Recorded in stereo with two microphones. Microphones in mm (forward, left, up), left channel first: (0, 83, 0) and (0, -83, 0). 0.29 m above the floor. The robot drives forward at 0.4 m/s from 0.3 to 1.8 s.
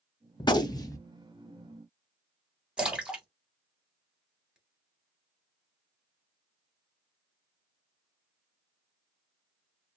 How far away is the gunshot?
About 0.6 m.